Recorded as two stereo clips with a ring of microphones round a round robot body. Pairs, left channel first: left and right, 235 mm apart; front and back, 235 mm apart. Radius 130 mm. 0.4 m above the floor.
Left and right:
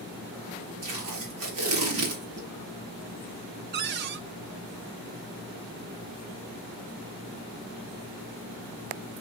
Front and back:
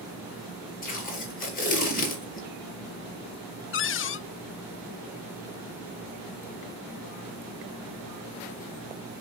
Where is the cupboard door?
40° right, 0.6 m.